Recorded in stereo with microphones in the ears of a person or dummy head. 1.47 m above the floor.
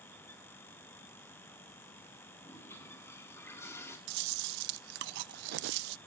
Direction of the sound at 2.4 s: 15° left (ahead or behind).